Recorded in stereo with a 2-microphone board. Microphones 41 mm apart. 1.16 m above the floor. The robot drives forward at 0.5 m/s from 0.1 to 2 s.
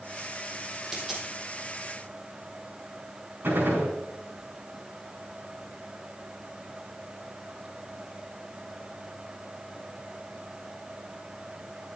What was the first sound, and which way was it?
A dropped coin, 5° right (ahead or behind).